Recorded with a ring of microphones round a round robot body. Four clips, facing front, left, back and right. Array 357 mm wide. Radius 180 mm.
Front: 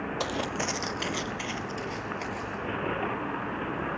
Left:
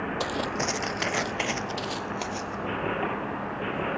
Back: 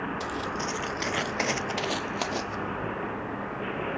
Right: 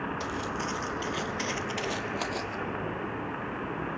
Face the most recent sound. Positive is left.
turn(degrees=-170)